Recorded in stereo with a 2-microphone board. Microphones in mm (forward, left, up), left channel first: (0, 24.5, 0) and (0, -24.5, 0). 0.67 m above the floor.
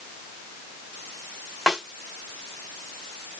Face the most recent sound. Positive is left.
turn(degrees=-5)  # may be behind; listen again after turning